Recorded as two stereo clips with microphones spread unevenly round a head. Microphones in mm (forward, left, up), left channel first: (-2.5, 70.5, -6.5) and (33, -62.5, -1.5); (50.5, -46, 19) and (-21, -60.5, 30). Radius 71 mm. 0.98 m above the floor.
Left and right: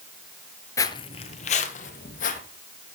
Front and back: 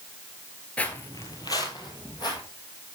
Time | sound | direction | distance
0.8 | footsteps | 85° left | 0.9 m